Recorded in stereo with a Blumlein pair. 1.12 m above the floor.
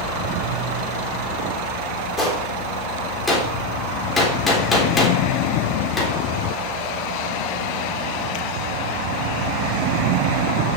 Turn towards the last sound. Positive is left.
turn(degrees=10)